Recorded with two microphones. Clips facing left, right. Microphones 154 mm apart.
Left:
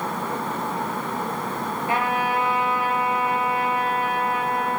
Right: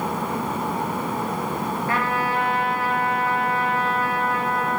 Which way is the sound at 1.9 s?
20° left (ahead or behind).